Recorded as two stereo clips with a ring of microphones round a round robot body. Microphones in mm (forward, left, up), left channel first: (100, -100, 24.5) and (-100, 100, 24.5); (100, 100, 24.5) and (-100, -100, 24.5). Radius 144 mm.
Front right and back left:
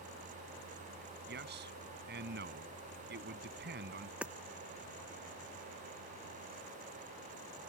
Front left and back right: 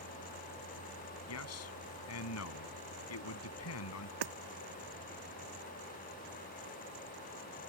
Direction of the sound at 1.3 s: 80° left.